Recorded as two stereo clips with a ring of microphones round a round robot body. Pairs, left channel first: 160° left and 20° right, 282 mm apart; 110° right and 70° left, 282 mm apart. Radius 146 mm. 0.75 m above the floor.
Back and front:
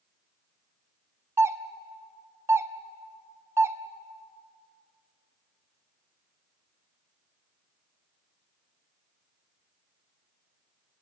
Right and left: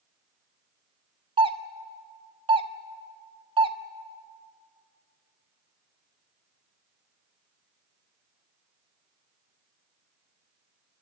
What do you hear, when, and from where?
1.4 s a doorbell: 40° left, 0.9 m